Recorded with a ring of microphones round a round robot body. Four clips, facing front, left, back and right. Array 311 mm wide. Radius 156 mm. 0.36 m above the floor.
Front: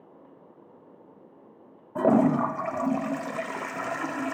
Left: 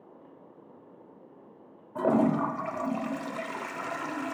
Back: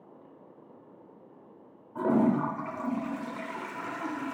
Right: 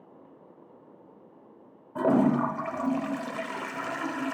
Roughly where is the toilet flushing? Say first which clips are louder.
Right 2 dB, front 4 dB; ahead.